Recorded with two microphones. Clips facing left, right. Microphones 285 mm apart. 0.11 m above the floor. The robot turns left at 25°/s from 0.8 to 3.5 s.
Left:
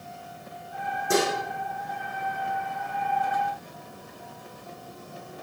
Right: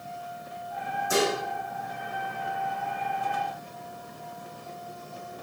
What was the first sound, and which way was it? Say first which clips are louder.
Dishes clattering: left 1 dB; 75° left (ahead or behind).